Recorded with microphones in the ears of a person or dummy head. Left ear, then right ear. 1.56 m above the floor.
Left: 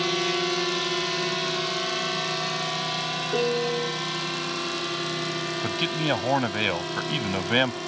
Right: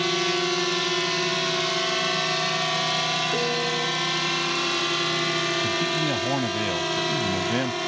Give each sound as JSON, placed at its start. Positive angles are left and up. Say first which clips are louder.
{"t": 0.0, "sound": "a drone", "louder": "right 1 dB", "side_deg": 0}
{"t": 3.3, "sound": "a piano", "louder": "even", "side_deg": 30}
{"t": 5.6, "sound": "a man speaking", "louder": "right 2 dB", "side_deg": 60}